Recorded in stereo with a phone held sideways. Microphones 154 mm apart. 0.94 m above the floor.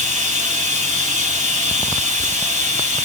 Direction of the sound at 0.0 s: 50° right (ahead or behind).